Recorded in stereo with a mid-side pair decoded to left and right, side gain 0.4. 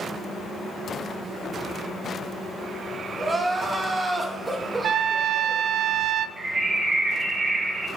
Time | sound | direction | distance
3.2 | crying | 20° right | 2.5 m
4.8 | a trumpet | 65° right | 0.7 m
6.4 | a bird | 35° right | 2.5 m